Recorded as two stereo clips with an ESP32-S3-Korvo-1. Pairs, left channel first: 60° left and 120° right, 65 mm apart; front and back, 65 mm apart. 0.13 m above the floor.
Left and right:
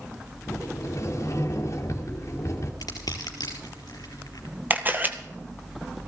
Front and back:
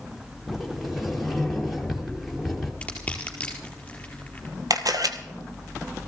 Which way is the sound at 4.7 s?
Straight behind.